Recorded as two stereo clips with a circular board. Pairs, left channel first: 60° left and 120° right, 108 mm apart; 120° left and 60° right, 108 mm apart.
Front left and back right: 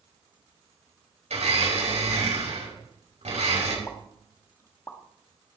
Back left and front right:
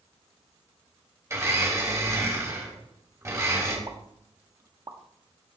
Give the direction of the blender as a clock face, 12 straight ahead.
4 o'clock.